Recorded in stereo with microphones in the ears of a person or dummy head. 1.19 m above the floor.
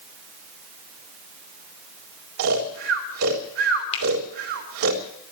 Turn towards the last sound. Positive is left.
turn(degrees=35)  # may be behind; listen again after turning